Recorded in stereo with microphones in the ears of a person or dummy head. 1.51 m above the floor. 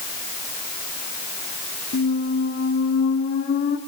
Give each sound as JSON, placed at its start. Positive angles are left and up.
{"t": 1.9, "sound": "a squeak", "side_deg": 50, "distance_m": 2.0}